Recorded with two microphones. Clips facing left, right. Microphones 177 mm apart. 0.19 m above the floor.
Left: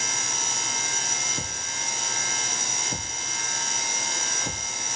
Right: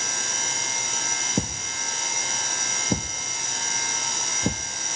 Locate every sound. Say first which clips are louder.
1.4 s a thud: right 8 dB; 55° right (ahead or behind), 2.0 m